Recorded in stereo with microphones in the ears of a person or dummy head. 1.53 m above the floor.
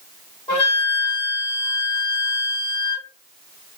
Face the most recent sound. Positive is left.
turn(degrees=10)  # may be behind; listen again after turning